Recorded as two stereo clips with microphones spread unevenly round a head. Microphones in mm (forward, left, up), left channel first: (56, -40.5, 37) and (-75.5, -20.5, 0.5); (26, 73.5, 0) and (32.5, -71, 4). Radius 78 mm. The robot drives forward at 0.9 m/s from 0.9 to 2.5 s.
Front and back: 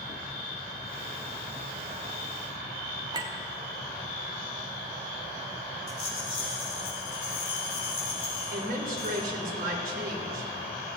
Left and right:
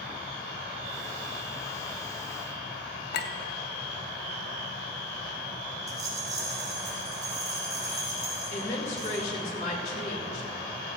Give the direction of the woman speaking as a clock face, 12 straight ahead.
7 o'clock.